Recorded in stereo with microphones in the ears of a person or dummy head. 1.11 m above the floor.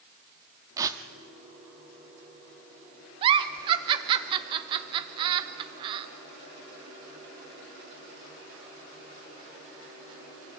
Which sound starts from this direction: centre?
Tearing paper, at 0.8 s.